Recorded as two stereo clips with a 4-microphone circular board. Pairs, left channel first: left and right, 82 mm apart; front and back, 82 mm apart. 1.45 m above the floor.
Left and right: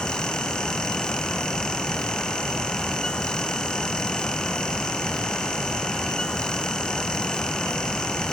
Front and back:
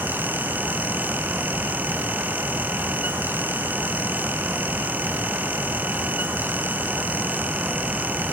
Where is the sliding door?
I don't hear a sliding door.